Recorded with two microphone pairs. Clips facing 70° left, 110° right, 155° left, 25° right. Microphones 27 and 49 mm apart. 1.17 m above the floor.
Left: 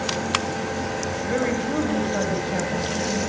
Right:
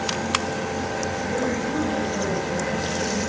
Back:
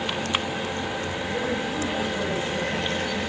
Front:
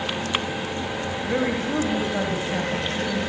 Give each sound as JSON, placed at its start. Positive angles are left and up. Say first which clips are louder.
{"t": 1.3, "sound": "a woman speaking", "louder": "left 3 dB, front 5 dB", "azimuth_deg": 5, "distance_m": 6.5}